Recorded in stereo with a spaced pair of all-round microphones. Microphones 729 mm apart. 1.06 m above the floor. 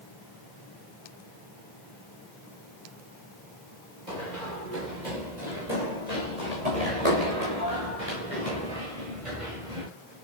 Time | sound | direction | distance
4.1 | running footsteps | 70° right (ahead or behind) | 8 m